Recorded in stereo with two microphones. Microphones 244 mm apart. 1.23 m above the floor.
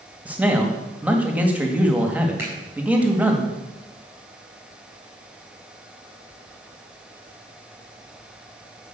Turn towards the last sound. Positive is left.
turn(degrees=-10)  # may be behind; listen again after turning